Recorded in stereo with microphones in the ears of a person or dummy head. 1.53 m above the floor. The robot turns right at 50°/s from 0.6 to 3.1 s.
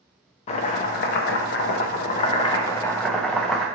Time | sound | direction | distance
0.5 | chopping | 50° left | 0.6 m